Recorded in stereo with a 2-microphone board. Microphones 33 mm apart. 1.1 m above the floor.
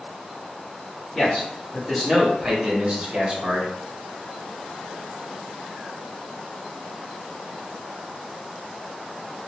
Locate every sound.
1.1 s a man speaking: 20° left (ahead or behind), 0.9 m; by 3.7 s 35° right (ahead or behind), 1.0 m